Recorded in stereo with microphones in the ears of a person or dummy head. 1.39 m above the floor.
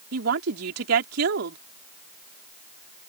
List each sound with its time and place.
0.1 s a woman speaking: 70° right (ahead or behind)